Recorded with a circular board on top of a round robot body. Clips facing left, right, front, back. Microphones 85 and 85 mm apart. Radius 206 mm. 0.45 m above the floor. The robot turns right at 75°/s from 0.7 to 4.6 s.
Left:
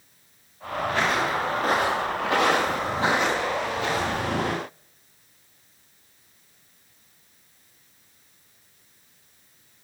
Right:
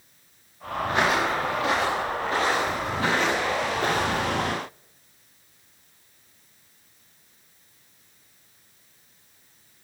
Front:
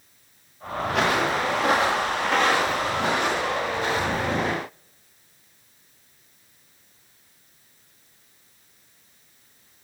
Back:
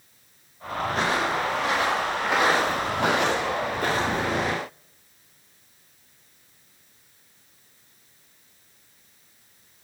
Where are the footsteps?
25° right, 6 m; by 4.4 s 90° right, 7 m.